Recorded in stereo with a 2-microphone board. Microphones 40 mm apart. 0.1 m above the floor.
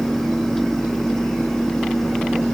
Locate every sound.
Only background noise.